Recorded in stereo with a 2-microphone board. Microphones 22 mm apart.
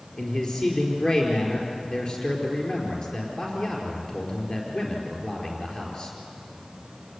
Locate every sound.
0.2 s a man speaking: 40° left (ahead or behind), 4.5 m